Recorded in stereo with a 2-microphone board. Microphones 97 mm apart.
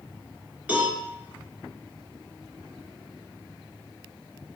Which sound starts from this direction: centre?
A cowbell, at 0.7 s.